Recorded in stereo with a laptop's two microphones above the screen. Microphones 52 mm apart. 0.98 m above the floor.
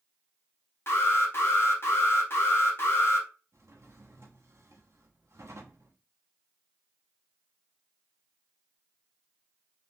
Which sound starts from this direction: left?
An alarm, at 0.9 s.